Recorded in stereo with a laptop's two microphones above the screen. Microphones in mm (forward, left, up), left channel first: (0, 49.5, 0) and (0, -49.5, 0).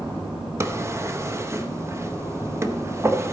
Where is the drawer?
30° right (ahead or behind), 0.6 m.